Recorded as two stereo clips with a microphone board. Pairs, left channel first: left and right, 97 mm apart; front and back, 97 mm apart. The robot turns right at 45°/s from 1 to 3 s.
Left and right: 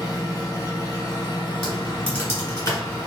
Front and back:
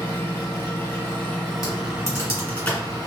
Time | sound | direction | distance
0.0 | an engine running | 65° left | 1.4 m
1.6 | typing on a keyboard | 15° left | 1.9 m